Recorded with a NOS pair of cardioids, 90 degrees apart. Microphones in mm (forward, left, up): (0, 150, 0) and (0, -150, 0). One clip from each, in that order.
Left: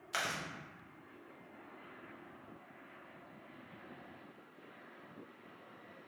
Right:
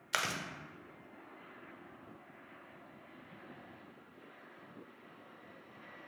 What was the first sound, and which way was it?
Chewing, 35° right.